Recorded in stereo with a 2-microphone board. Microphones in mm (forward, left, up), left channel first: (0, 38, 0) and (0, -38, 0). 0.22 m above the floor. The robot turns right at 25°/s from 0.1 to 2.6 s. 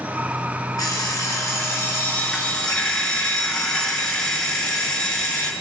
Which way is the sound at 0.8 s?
120° left.